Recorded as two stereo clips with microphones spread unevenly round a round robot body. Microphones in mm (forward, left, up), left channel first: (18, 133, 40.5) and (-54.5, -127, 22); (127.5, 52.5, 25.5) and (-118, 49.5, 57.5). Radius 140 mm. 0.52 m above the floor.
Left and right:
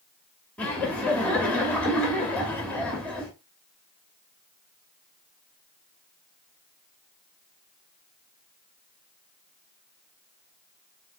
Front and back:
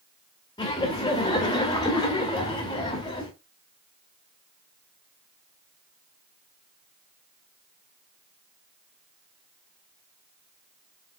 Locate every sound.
0.6 s laughter: 15° right, 0.9 m